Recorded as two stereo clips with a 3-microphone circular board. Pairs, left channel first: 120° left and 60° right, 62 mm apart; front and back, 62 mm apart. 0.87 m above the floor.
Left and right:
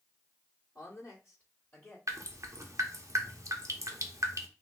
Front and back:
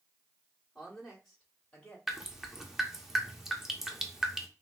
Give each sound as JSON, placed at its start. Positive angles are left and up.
{"t": 0.8, "sound": "a woman speaking", "azimuth_deg": 90, "distance_m": 2.5}
{"t": 2.1, "sound": "dripping", "azimuth_deg": -95, "distance_m": 0.8}